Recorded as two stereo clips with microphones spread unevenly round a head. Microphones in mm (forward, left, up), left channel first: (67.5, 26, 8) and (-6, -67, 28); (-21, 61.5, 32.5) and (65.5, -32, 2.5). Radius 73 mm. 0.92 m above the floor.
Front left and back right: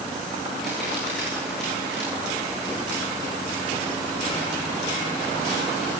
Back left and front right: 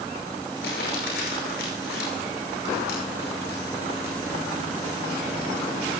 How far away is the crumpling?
About 9 m.